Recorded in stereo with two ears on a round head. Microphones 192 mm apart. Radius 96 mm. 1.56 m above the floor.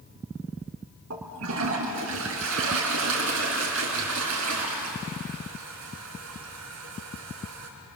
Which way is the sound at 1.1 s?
75° right (ahead or behind).